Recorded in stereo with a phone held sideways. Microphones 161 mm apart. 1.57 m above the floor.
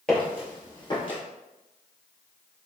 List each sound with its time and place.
0.1 s footsteps: 5° left (ahead or behind), 1.7 m; by 1.2 s 35° left (ahead or behind), 2 m